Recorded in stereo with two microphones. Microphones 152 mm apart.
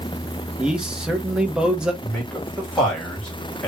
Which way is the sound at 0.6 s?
5° right (ahead or behind).